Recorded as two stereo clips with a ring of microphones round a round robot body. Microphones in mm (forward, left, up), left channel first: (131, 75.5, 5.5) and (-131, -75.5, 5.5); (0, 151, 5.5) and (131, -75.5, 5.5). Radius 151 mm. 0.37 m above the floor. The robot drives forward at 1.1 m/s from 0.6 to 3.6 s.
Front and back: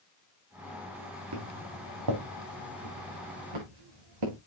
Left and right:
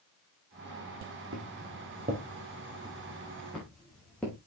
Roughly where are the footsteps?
Behind right.